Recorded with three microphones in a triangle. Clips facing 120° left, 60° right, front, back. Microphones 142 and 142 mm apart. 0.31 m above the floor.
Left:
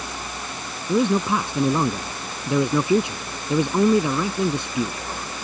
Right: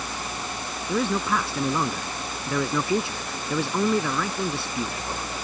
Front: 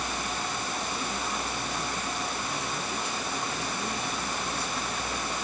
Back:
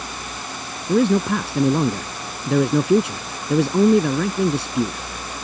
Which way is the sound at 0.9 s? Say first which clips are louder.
Left 5 dB, back 16 dB; 170° right.